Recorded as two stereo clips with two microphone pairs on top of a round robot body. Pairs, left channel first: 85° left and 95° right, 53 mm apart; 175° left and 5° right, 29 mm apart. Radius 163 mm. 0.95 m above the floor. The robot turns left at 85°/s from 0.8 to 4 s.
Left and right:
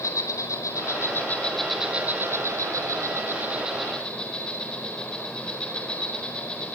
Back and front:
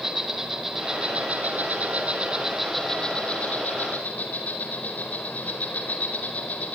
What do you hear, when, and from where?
0.0 s an insect: 70° left, 4.5 m; by 6.8 s 160° left, 4.5 m